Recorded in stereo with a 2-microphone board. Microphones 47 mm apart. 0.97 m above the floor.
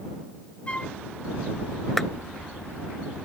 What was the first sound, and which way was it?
A flute, 25° left (ahead or behind).